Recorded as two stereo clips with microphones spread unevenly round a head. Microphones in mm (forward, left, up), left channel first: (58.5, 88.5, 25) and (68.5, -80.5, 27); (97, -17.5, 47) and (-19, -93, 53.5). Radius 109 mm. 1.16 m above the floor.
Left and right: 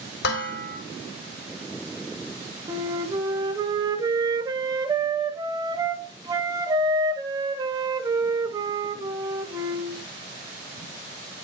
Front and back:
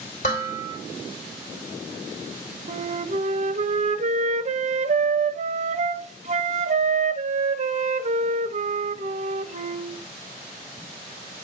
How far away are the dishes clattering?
About 2.5 m.